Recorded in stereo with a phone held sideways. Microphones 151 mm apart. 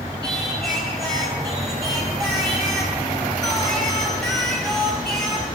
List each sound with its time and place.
0.2 s singing: 5° left (ahead or behind), 3.5 m